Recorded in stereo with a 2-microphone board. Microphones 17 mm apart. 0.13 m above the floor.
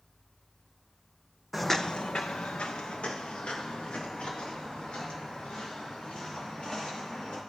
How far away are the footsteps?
About 0.6 m.